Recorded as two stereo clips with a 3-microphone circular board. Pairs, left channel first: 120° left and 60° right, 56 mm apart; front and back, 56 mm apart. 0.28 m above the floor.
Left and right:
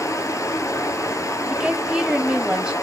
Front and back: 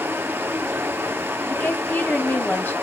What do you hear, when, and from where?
0.0 s running water: 135° left, 1.2 m
1.5 s a woman speaking: 5° left, 1.1 m